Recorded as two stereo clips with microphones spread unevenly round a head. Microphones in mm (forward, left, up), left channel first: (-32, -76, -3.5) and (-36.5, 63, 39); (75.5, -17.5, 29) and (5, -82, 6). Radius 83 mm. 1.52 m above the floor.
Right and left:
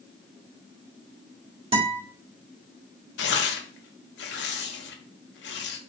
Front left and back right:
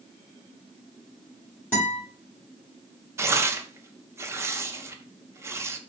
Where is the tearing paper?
70° right, 0.7 m.